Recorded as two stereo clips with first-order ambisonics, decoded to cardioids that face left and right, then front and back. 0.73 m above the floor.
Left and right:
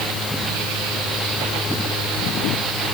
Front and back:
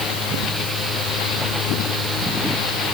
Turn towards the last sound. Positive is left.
No sound to turn to.